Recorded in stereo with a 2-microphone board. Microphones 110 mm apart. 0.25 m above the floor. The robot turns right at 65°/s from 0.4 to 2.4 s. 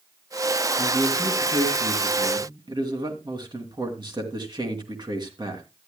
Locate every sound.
0.8 s a man speaking: 160° right, 3 m; by 5.6 s 55° right, 3 m